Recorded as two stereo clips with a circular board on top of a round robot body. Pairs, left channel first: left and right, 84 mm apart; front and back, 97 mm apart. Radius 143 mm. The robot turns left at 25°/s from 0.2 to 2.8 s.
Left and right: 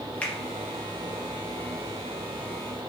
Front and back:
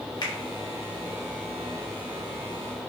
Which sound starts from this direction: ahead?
A finger snap, at 0.2 s.